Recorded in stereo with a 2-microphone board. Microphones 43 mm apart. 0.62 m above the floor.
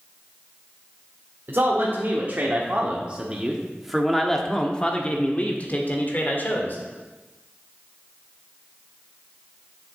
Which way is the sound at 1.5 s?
55° right (ahead or behind).